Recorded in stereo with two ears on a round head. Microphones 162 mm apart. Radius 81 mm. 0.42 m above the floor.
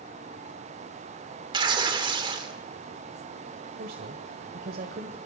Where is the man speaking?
55° right (ahead or behind), 1.5 m.